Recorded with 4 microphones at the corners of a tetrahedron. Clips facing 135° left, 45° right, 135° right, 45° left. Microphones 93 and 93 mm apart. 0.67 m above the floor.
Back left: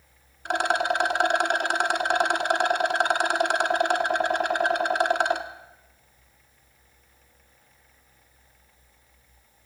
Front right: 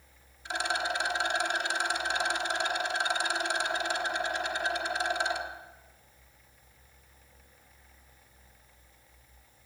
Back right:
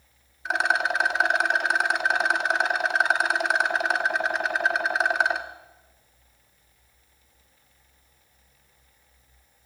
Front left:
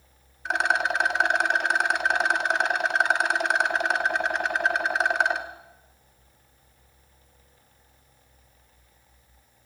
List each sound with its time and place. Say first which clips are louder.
0.5 s a rattle: back left 8 dB, even; 135° left, 0.9 m